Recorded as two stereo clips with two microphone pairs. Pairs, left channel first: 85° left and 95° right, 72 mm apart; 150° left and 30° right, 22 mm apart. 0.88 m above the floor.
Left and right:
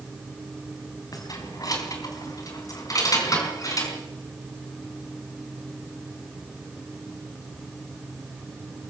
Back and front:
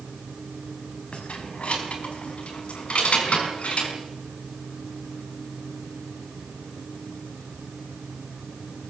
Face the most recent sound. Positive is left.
turn(degrees=125)